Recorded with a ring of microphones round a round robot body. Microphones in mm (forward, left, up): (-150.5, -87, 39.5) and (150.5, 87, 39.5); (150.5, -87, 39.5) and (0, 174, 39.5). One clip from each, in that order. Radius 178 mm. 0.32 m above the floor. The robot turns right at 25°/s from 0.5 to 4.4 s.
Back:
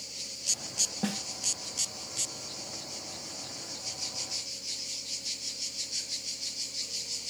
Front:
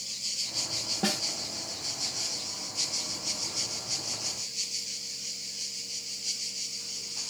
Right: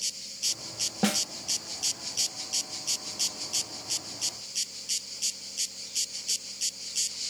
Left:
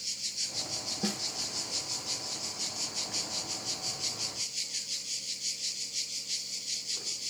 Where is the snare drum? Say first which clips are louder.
Front 5 dB, right 10 dB; 60° right, 0.6 m; by 1.2 s 55° right, 0.6 m.